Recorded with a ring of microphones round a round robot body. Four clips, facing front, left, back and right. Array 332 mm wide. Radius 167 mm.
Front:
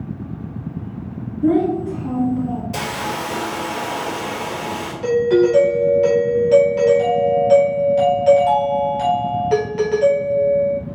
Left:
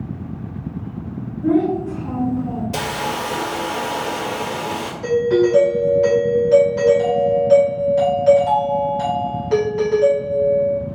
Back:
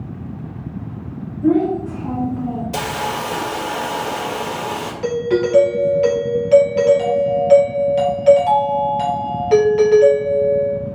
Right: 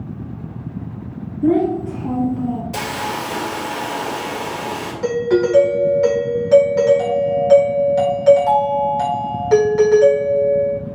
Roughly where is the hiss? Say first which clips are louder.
Left 1 dB, back 2 dB; behind left.